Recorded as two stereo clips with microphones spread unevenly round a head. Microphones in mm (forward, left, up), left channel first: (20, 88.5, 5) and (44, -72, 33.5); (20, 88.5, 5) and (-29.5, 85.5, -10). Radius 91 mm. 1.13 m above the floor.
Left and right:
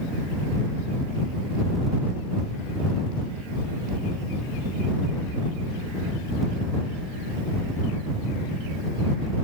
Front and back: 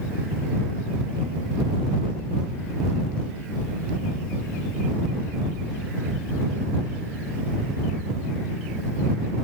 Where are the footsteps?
No footsteps in this recording.